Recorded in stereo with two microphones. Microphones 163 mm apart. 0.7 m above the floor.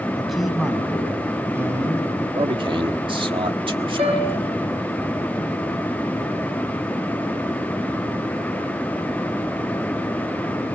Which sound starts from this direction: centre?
A man speaking, at 0.2 s.